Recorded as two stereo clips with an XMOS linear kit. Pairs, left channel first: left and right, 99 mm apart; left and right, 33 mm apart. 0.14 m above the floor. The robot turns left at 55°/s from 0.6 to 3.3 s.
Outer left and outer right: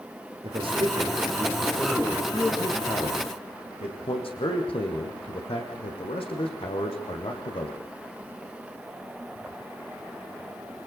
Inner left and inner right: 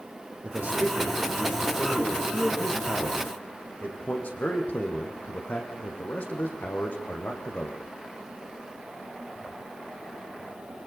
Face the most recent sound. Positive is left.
turn(degrees=100)